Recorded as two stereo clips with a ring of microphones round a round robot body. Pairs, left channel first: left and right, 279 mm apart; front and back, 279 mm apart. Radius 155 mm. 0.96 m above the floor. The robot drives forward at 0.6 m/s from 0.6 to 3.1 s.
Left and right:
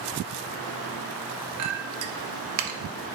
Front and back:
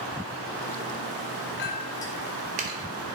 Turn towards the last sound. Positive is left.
turn(degrees=-135)